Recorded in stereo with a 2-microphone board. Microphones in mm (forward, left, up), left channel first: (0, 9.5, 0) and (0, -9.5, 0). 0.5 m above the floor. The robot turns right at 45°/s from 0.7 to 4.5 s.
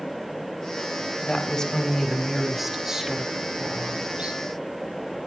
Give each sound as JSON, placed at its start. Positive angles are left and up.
{"t": 1.2, "sound": "a woman speaking", "azimuth_deg": 130, "distance_m": 3.5}